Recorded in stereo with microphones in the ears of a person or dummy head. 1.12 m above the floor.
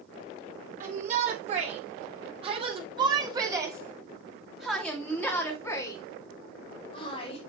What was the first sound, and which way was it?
A shout, 45° right (ahead or behind).